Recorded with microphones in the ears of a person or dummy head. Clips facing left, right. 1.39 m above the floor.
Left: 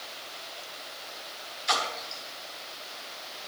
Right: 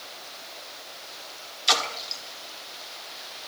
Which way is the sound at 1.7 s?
45° right (ahead or behind).